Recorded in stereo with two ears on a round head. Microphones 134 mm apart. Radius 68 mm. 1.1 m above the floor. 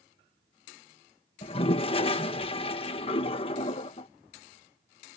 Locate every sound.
1.4 s a toilet flushing: 40° left (ahead or behind)